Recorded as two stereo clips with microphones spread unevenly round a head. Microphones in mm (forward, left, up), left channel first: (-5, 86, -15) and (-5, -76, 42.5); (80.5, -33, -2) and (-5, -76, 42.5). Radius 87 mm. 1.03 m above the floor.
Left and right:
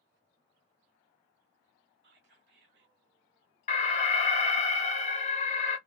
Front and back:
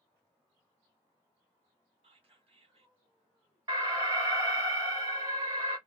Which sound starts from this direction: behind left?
An alarm, at 3.7 s.